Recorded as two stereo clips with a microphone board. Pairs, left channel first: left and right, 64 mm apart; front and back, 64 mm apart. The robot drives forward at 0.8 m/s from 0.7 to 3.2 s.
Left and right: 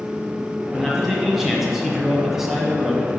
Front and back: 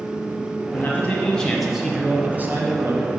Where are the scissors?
I don't hear scissors.